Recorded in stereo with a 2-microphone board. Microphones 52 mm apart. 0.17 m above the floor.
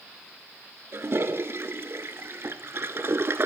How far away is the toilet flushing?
About 0.6 m.